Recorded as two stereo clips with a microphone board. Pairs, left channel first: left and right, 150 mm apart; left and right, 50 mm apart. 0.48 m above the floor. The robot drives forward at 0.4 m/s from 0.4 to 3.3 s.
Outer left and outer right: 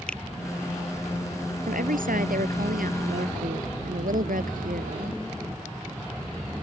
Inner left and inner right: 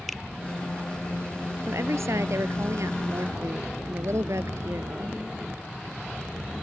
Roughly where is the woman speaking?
Right.